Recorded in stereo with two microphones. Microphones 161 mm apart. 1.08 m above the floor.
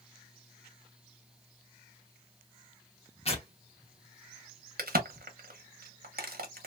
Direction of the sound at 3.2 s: 40° left (ahead or behind).